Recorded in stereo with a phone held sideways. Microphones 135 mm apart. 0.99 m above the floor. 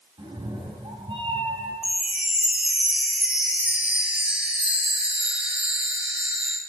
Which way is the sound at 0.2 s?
40° right (ahead or behind).